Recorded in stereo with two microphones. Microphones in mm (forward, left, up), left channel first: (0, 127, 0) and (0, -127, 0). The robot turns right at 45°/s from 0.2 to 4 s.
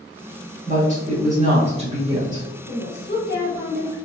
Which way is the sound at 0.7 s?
110° right.